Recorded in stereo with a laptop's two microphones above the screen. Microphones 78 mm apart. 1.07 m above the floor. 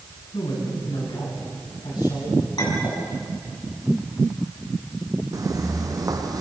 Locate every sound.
0.3 s a man speaking: 70° left (ahead or behind), 10 m
2.6 s a clink: 60° left (ahead or behind), 6 m
5.3 s footsteps: 45° right (ahead or behind), 3.5 m; by 6.4 s 55° right (ahead or behind), 3 m